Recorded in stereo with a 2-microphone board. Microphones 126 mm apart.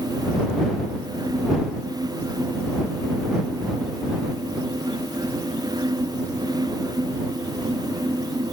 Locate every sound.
Only background noise.